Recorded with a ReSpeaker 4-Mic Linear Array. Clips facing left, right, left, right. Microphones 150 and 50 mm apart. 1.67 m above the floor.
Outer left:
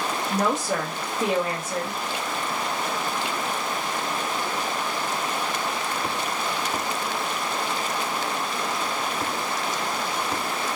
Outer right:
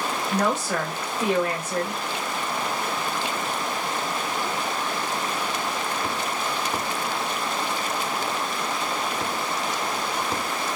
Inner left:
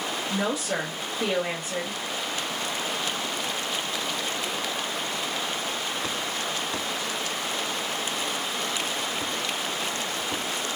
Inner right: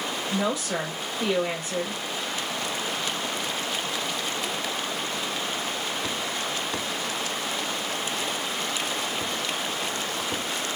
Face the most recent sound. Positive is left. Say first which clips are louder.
# even, inner right 1 dB
turn(degrees=10)  # may be behind; listen again after turning